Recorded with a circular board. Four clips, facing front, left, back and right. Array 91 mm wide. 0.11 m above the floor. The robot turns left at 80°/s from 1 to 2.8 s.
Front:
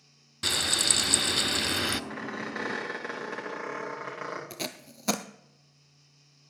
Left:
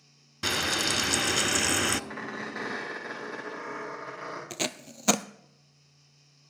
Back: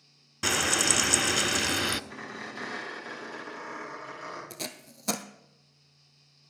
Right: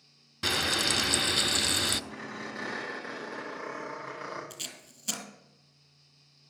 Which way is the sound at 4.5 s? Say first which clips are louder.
Left 13 dB, front 3 dB; 75° left.